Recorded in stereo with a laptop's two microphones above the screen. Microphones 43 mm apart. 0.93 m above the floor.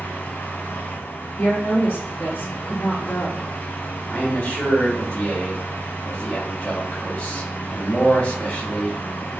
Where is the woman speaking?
65° left (ahead or behind), 1.4 m.